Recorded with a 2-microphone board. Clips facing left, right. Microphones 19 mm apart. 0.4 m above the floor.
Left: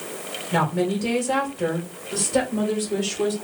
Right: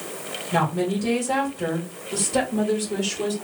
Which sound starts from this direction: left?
A woman speaking, at 0.5 s.